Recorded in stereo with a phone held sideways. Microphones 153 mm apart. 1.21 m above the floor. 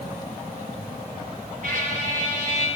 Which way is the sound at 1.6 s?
60° right (ahead or behind).